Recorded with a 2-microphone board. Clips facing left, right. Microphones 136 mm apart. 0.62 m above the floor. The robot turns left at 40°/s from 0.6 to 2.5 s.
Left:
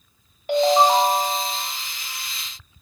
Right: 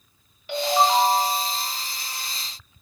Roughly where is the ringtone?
Ahead left.